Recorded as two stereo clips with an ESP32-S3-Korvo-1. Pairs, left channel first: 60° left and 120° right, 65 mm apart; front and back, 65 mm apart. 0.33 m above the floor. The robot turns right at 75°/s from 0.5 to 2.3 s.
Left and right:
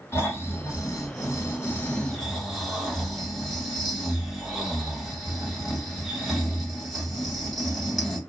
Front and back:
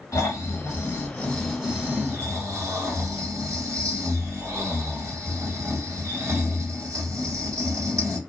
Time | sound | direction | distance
0.1 | snoring | 15° left | 2.5 m